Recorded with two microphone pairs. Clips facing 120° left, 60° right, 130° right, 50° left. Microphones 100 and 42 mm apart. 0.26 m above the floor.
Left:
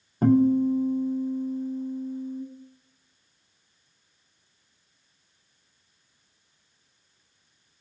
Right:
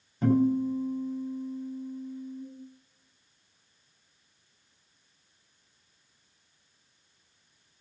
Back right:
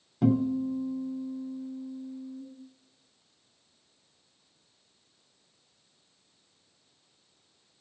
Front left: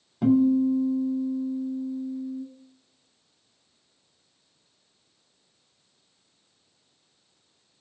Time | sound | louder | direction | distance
0.2 | a guitar | left 5 dB, front left 6 dB | 135° left | 2.5 m